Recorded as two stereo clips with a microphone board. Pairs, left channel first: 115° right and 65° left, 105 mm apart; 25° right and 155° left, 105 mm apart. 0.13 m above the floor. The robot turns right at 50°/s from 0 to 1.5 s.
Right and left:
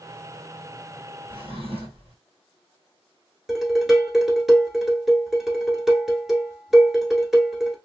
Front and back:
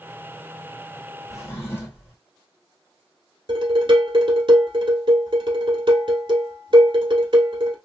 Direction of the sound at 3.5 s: 155° left.